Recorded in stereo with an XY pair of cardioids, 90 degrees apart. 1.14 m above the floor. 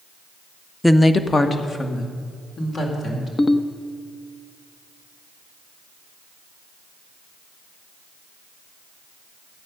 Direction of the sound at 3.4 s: 35° left.